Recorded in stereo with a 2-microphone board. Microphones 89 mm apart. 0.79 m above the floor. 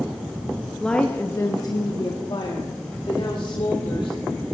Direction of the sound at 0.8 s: 5° left (ahead or behind).